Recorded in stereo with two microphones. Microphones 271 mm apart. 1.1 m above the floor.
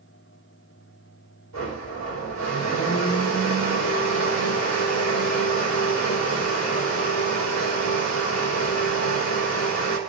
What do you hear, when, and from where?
1.5 s a blender: 80° left, 3.5 m